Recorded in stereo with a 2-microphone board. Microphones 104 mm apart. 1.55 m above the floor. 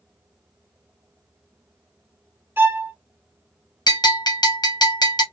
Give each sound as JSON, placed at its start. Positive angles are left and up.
{"t": 2.6, "sound": "a violin", "side_deg": -20, "distance_m": 0.9}
{"t": 3.9, "sound": "a bell", "side_deg": 45, "distance_m": 1.0}